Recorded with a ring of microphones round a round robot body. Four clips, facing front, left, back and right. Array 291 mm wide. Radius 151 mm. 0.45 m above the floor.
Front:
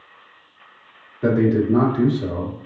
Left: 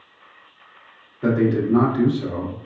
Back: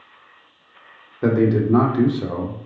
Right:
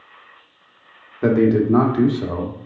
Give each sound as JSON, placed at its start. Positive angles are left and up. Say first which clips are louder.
{"t": 1.2, "sound": "a man speaking", "louder": "right 4 dB, even", "azimuth_deg": -125, "distance_m": 1.1}